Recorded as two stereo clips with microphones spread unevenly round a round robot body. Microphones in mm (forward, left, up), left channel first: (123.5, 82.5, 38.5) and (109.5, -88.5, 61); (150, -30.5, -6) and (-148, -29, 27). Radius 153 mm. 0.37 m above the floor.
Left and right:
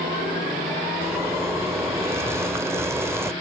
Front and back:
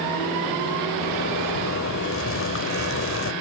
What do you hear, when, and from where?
1.0 s a zipper: 15° right, 1.2 m